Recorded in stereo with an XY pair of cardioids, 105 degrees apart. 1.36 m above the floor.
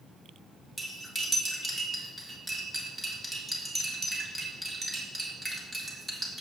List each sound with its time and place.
0.8 s cutlery clinking: 20° right, 1.9 m